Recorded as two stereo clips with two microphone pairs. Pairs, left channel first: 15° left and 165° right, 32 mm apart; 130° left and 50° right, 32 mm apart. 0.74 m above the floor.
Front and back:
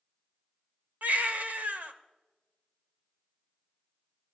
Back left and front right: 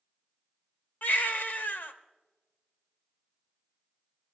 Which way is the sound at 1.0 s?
160° left.